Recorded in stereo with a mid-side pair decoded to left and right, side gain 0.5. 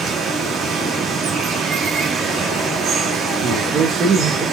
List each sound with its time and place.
0.0 s running water: 50° right, 2.5 m
3.4 s a man speaking: 50° right, 1.3 m